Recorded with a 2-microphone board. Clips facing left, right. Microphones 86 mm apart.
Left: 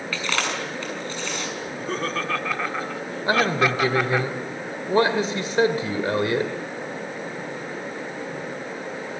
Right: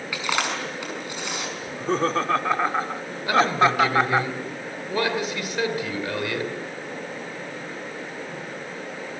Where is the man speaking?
30° left (ahead or behind), 2 m.